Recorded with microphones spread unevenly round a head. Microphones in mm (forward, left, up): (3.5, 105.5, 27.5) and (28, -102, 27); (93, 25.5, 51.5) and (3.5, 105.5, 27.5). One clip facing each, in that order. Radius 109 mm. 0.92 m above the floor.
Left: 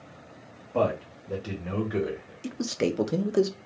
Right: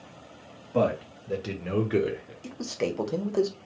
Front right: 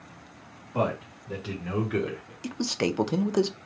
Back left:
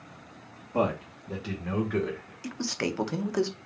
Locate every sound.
0.7 s a man speaking: 150° right, 1.9 m; by 2.3 s 115° right, 1.2 m
2.4 s a man speaking: 30° left, 0.8 m